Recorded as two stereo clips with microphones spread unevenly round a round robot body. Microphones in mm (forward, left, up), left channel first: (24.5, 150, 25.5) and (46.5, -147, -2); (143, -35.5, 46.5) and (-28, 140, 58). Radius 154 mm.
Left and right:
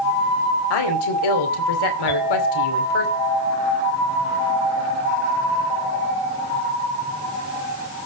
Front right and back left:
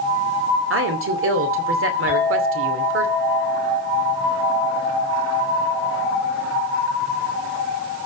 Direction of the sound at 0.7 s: 100° left.